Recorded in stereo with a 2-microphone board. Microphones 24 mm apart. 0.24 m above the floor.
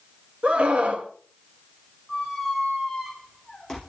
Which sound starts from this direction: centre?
A squeak, at 2.1 s.